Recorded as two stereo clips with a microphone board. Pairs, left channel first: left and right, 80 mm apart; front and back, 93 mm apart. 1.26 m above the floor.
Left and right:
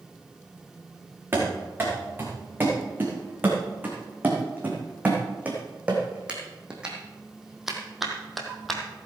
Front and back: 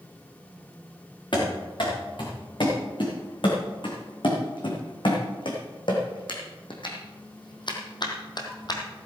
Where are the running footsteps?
25° right, 5 m; by 8.8 s 5° left, 1.8 m.